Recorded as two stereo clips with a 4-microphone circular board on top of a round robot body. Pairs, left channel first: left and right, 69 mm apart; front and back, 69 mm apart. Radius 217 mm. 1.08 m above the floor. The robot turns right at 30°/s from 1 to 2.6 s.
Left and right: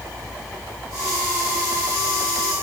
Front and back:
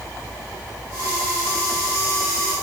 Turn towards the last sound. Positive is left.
No sound to turn to.